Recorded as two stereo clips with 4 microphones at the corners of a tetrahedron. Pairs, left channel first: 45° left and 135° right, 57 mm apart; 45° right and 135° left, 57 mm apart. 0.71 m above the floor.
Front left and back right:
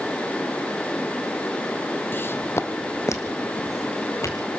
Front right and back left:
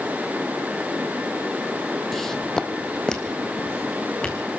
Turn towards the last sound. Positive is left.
turn(degrees=30)